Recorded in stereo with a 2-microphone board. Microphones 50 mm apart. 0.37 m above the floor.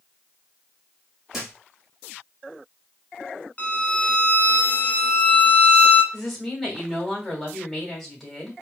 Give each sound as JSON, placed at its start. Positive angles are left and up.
{"t": 1.3, "sound": "a thud", "side_deg": -5, "distance_m": 2.0}
{"t": 3.6, "sound": "a violin", "side_deg": 30, "distance_m": 0.8}
{"t": 6.1, "sound": "a woman speaking", "side_deg": 5, "distance_m": 2.0}